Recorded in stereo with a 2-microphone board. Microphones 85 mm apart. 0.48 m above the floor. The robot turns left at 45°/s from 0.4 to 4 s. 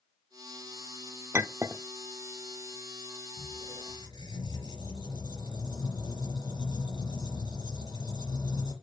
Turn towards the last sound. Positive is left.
turn(degrees=50)  # may be behind; listen again after turning